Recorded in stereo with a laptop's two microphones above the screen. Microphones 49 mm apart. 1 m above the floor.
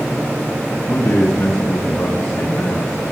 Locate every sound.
0.9 s a man speaking: 70° left (ahead or behind), 1.3 m